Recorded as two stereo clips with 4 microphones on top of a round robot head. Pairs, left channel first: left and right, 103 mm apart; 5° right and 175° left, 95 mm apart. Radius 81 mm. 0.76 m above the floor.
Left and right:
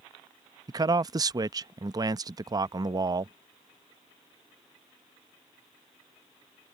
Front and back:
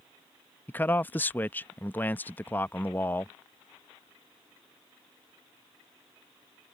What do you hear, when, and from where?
0.7 s a man speaking: 65° right